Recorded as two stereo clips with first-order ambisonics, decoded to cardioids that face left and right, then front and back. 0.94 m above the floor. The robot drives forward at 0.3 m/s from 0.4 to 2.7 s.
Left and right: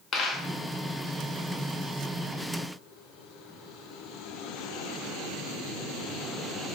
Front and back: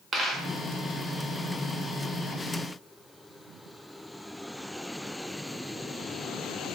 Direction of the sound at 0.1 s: 125° left.